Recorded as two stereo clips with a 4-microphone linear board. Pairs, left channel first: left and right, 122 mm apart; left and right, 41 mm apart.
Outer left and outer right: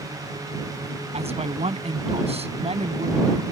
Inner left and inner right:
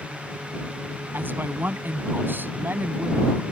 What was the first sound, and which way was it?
A man speaking, 60° right (ahead or behind).